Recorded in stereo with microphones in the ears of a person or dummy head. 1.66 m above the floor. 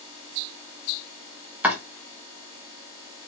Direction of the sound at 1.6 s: 10° right (ahead or behind).